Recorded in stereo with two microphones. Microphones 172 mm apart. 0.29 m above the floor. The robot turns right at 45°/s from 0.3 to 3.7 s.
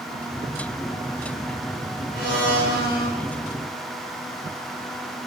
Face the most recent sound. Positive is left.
turn(degrees=70)